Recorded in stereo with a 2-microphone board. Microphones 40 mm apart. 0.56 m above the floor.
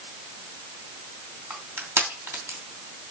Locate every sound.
1.5 s crushing: 80° right, 3 m